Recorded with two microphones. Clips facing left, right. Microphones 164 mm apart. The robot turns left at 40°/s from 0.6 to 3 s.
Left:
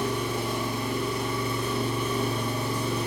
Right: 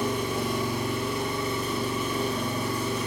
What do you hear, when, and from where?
0.0 s an engine running: 120° right, 1.4 m; by 3.1 s 145° left, 1.4 m